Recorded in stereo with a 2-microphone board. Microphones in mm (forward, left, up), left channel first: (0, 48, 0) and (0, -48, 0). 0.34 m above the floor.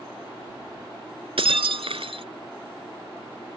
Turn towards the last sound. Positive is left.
turn(degrees=-75)  # may be behind; listen again after turning